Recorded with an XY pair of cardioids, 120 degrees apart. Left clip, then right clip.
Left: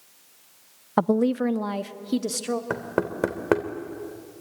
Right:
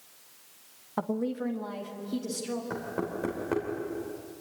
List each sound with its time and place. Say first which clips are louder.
1.0 s a woman speaking: left 10 dB; 55° left, 0.6 m; by 2.6 s 60° left, 2.5 m
2.7 s knocking: left 7 dB; 65° left, 3 m